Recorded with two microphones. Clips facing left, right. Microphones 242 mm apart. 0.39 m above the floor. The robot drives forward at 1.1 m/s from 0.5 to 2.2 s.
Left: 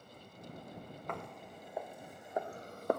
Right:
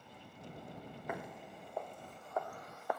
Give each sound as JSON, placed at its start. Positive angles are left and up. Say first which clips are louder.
{"t": 1.1, "sound": "footsteps", "louder": "right 1 dB", "side_deg": -10}